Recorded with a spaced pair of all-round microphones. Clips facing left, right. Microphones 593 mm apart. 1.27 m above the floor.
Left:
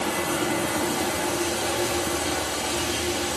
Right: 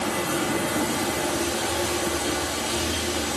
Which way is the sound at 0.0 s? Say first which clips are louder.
Even; centre (ahead or behind).